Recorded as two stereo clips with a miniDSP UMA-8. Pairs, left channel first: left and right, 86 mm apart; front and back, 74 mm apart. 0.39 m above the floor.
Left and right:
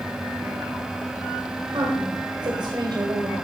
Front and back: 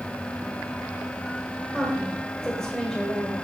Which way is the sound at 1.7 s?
80° right.